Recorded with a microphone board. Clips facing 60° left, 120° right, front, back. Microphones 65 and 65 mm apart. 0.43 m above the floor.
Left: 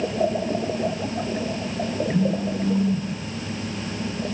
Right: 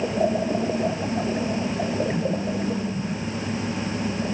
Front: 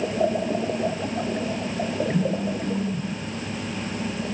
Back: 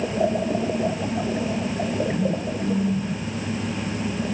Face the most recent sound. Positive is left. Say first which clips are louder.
# left 2 dB, even
turn(degrees=45)